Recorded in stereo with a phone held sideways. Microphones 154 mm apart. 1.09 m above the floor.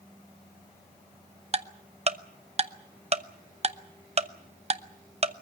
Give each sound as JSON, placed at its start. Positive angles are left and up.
{"t": 1.5, "sound": "ticking", "side_deg": -45, "distance_m": 0.7}